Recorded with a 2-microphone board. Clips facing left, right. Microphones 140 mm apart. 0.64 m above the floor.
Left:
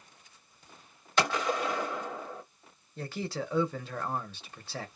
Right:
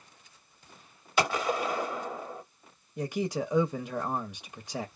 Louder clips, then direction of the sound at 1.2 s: Right 1 dB; 10° right (ahead or behind).